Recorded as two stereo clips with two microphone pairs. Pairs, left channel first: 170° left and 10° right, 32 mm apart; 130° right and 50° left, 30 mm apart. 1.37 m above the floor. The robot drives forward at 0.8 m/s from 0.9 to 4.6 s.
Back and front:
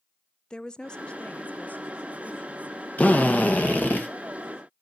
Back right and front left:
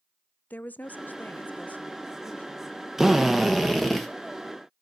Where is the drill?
130° left, 1.6 m; by 4.1 s 145° left, 2.5 m.